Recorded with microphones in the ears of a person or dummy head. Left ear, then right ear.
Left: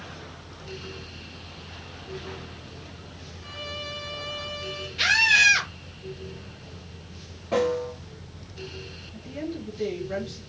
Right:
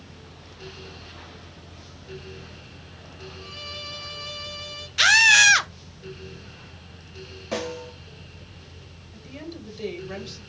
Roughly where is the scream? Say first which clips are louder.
Right 4 dB; right.